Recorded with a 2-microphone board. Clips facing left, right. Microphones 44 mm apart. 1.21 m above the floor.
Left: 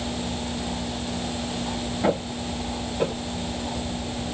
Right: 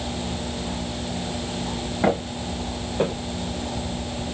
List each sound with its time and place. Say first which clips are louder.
2.0 s footsteps: right 2 dB; 40° right (ahead or behind), 3.5 m; by 3.1 s 35° right (ahead or behind), 2.5 m